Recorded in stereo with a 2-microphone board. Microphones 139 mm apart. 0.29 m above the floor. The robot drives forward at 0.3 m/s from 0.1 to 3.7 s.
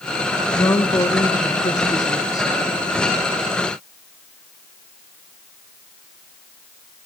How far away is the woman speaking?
About 2.5 m.